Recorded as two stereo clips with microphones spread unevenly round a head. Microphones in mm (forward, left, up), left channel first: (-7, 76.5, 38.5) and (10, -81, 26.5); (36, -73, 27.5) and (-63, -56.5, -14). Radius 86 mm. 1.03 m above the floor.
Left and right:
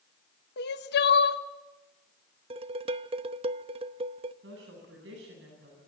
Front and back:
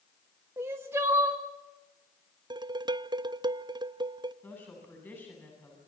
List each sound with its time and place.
0.6 s crying: 105° left, 1.3 m
2.5 s dishes clattering: 140° right, 0.8 m
4.4 s a woman speaking: 80° right, 9.5 m